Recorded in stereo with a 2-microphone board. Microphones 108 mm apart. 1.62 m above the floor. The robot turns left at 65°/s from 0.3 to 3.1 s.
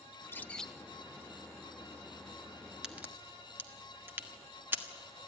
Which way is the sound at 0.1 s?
20° left (ahead or behind).